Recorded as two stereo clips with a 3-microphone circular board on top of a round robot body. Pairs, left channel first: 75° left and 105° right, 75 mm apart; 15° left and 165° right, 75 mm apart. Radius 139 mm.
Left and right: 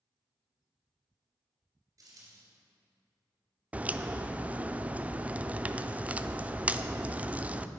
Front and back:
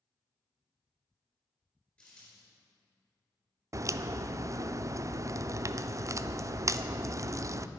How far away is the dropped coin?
About 3.5 m.